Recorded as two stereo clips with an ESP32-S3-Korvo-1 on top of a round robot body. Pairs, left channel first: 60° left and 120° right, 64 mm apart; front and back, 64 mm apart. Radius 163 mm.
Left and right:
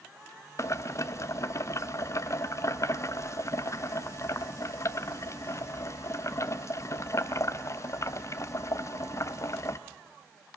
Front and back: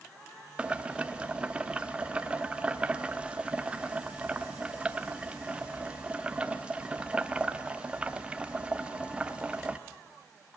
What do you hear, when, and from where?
0.6 s boiling: 105° left, 0.7 m